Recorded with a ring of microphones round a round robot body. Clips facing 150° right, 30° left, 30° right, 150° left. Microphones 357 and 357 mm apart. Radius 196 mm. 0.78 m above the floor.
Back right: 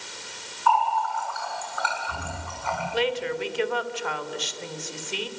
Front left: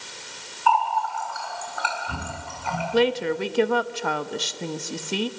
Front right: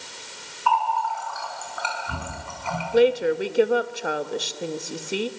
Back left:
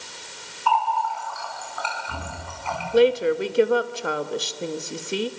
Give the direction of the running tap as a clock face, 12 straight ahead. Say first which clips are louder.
Front left 1 dB, back left 1 dB; 1 o'clock.